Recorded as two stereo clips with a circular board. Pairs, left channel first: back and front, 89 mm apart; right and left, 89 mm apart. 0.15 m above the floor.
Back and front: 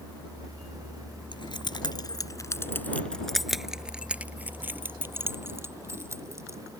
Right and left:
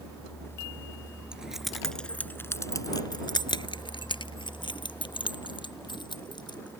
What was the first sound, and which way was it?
Keys jangling, 170° left.